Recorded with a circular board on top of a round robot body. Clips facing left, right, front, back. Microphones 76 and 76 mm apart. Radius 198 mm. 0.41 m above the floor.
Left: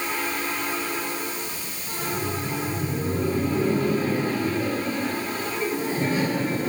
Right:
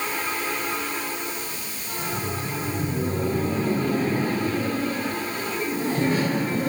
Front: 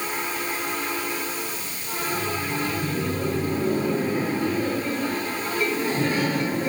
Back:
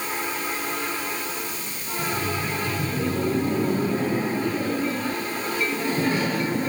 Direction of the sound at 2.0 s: 160° right.